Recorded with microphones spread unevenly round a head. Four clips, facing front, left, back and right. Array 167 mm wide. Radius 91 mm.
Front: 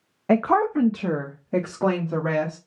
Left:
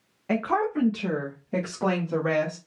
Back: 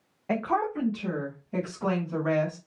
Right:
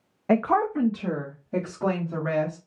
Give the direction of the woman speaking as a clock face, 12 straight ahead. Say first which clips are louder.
Right 3 dB, front 8 dB; 12 o'clock.